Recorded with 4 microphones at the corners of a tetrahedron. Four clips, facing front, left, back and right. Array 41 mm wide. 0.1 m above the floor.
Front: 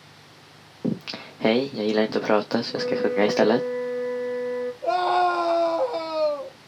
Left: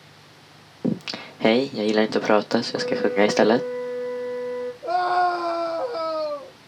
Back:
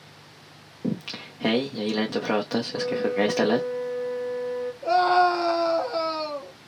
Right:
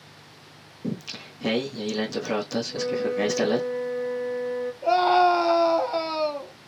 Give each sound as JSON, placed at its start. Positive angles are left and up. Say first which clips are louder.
{"t": 0.8, "sound": "singing", "louder": "left 6 dB, front 2 dB", "azimuth_deg": 75, "distance_m": 0.9}
{"t": 2.7, "sound": "a flute", "louder": "left 3 dB, front 2 dB", "azimuth_deg": -15, "distance_m": 1.8}
{"t": 4.8, "sound": "a scream", "louder": "right 2 dB, back 2 dB", "azimuth_deg": -75, "distance_m": 2.5}